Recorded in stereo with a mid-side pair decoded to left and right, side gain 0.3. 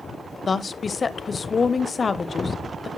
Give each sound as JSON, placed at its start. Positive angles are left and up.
{"t": 0.5, "sound": "a woman speaking", "azimuth_deg": 50, "distance_m": 0.8}